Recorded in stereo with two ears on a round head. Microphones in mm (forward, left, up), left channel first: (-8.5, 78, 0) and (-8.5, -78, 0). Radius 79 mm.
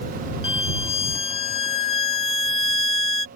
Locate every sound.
0.4 s a violin: 35° left (ahead or behind)